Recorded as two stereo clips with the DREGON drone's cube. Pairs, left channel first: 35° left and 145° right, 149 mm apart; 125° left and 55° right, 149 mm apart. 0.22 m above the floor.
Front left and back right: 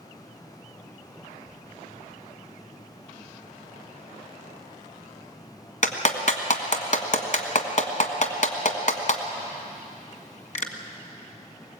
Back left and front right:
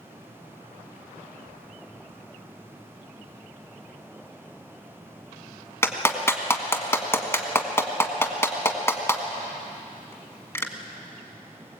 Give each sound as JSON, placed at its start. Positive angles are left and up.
{"t": 5.8, "sound": "a clap", "azimuth_deg": 55, "distance_m": 1.6}